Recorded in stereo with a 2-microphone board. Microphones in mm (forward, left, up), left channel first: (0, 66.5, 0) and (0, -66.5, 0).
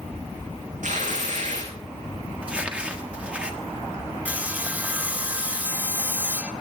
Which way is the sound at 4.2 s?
10° right (ahead or behind).